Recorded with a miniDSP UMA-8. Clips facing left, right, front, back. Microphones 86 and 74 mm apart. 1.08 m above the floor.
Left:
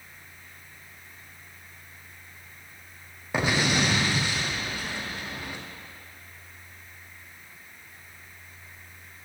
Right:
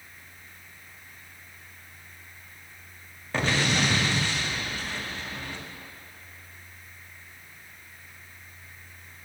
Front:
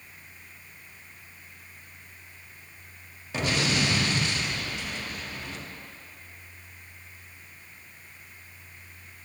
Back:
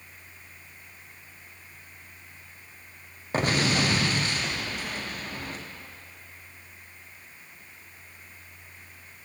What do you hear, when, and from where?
3.3 s an explosion: 165° left, 0.6 m